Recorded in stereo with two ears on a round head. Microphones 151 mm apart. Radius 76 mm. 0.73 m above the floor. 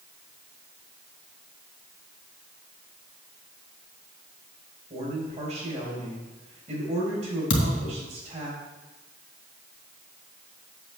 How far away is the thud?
About 2.5 m.